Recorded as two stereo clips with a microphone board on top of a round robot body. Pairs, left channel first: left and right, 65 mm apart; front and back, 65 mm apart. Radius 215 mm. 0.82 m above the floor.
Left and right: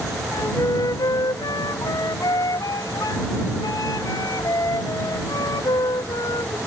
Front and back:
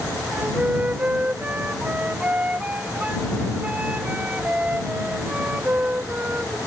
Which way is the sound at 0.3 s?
110° left.